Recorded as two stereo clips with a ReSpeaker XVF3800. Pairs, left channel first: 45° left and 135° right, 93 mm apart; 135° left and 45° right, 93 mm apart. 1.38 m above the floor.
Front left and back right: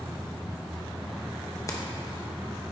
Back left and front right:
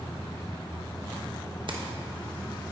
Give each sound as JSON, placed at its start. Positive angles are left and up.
{"t": 1.7, "sound": "keys jangling", "azimuth_deg": -15, "distance_m": 1.1}